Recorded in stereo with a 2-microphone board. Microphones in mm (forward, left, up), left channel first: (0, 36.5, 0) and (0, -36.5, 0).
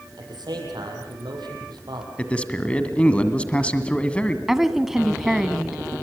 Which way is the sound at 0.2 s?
70° right (ahead or behind).